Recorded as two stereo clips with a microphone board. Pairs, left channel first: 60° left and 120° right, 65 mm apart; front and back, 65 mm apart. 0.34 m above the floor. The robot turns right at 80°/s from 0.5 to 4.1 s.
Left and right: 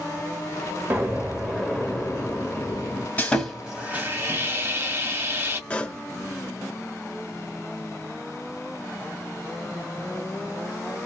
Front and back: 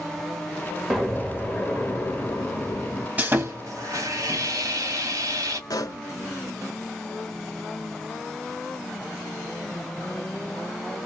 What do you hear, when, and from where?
0.9 s an explosion: 95° right, 1.3 m; by 3.1 s 80° left, 1.3 m
3.2 s sawing: 120° left, 1.4 m; by 5.6 s 165° right, 1.4 m
5.7 s a pop: 10° right, 0.6 m